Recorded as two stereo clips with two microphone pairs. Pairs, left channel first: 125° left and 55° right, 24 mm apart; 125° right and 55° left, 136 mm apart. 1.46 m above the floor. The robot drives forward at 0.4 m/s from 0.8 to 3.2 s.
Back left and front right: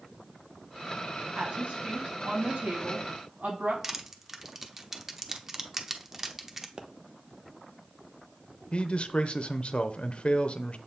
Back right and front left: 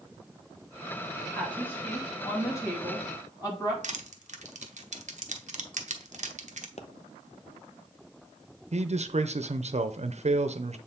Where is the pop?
100° right, 0.6 m.